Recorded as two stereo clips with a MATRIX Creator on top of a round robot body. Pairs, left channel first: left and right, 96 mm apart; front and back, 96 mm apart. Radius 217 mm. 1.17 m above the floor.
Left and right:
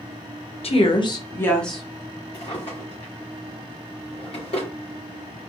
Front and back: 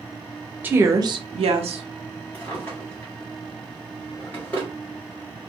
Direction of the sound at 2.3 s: 65° left.